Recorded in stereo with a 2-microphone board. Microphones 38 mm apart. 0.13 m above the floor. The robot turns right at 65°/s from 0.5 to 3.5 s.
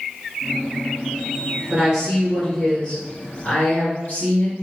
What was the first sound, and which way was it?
A woman speaking, 30° right.